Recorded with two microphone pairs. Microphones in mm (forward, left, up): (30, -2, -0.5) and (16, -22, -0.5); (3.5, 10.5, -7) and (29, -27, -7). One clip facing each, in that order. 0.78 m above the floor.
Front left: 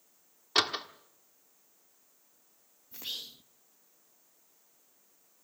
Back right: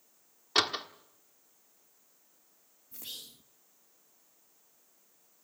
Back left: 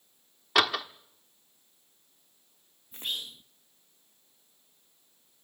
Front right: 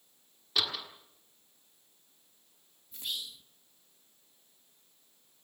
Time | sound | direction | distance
0.6 | a door slam | 145° left | 1.4 m
2.9 | whispering | 100° left | 0.9 m